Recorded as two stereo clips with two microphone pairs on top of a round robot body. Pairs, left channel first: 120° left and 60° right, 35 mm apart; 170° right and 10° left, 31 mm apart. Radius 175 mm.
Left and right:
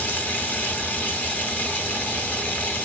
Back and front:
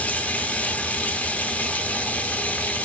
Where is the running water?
165° left, 0.7 m.